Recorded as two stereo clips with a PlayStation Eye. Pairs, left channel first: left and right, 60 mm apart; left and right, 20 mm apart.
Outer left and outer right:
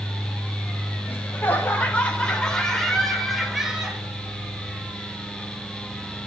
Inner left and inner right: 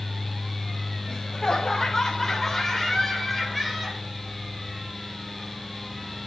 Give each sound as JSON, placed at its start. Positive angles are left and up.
{"t": 1.1, "sound": "laughter", "side_deg": 30, "distance_m": 5.0}